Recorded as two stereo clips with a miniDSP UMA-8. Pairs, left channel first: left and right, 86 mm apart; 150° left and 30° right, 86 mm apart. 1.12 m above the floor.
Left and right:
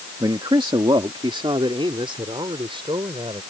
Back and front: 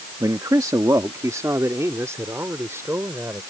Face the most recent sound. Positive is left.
turn(degrees=-90)